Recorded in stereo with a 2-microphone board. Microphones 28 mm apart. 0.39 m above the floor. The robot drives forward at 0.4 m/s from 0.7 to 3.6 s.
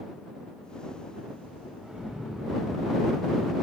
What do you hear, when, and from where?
1.8 s an explosion: 20° right (ahead or behind), 1.8 m; by 3.5 s 15° right (ahead or behind), 2.5 m